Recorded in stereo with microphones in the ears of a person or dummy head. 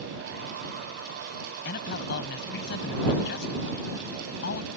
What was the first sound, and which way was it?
A man speaking, 60° left (ahead or behind).